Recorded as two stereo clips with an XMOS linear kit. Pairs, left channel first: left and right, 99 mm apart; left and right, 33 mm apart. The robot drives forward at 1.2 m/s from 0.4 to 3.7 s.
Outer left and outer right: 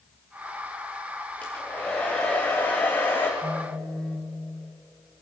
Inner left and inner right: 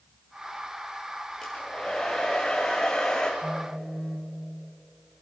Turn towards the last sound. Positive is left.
turn(degrees=5)  # may be behind; listen again after turning